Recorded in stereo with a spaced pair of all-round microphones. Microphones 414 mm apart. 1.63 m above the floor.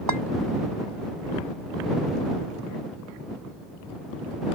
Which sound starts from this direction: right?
A clink, at 0.1 s.